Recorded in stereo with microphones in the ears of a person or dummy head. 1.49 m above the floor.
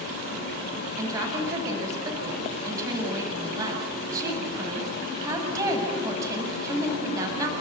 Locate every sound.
1.0 s a woman speaking: 15° right (ahead or behind), 8 m